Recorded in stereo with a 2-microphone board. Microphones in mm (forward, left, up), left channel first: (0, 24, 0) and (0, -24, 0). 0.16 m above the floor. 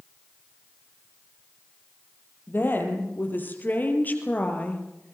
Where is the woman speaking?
50° left (ahead or behind), 6 m; by 5.1 s 25° left (ahead or behind), 4 m.